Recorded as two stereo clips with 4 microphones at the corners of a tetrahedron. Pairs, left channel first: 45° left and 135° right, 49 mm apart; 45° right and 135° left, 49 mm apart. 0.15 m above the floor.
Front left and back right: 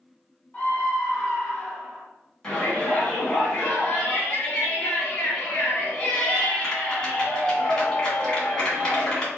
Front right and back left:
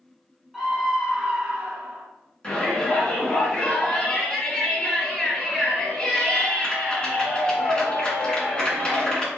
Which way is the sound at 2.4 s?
15° right.